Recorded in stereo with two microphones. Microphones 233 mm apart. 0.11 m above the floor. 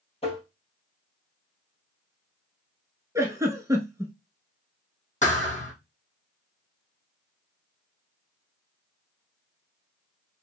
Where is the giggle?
15° right (ahead or behind), 0.7 m.